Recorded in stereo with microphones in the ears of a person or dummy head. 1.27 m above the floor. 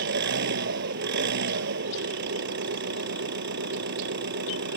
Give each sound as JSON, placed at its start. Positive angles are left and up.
{"t": 0.0, "sound": "an engine running", "side_deg": -70}